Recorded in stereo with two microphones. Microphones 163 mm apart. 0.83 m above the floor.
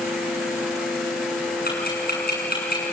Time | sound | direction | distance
1.6 | ticking | 70° left (ahead or behind) | 7.5 m